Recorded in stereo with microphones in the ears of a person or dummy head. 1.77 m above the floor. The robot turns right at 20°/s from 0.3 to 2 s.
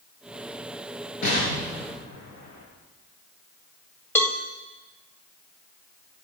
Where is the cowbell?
10° left (ahead or behind), 1.7 m.